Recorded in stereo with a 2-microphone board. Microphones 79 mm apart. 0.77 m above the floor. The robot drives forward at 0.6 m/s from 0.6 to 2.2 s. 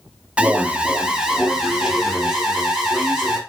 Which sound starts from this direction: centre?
An alarm, at 0.4 s.